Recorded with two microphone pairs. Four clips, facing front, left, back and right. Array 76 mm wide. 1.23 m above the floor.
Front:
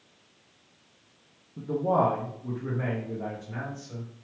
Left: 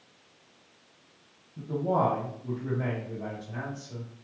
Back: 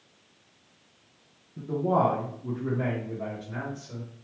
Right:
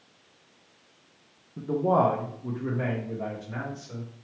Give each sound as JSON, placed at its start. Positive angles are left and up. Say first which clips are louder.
{"t": 1.6, "sound": "a man speaking", "louder": "right 4 dB, even", "azimuth_deg": -80, "distance_m": 0.5}